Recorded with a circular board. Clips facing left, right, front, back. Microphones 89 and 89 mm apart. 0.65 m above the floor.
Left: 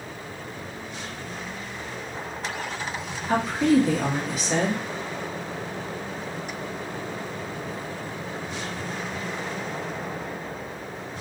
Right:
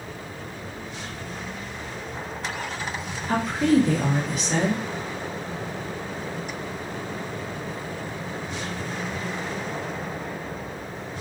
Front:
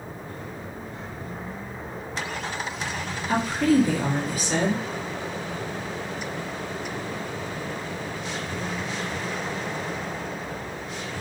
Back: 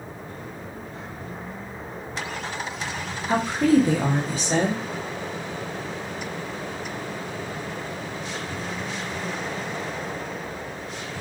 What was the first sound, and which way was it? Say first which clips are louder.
A woman speaking: even, back 2 dB; 175° left.